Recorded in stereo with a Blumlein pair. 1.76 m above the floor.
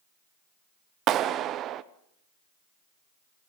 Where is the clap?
30° right, 1.0 m.